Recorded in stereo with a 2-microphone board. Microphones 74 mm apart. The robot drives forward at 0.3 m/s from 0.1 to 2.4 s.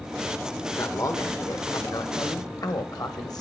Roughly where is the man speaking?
Left.